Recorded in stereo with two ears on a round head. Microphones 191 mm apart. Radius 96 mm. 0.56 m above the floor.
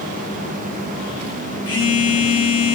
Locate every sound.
1.7 s a phone buzzing: 25° left (ahead or behind), 1.4 m